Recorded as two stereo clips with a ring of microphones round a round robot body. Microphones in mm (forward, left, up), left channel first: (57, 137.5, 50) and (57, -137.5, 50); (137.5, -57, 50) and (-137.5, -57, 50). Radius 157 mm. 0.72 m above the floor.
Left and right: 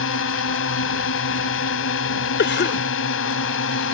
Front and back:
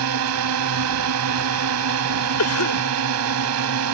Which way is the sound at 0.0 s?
140° left.